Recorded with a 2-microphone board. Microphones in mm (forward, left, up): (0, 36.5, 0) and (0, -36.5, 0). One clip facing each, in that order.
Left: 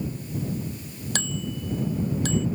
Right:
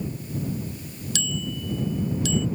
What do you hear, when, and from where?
1.1 s a bicycle bell: 45° left (ahead or behind)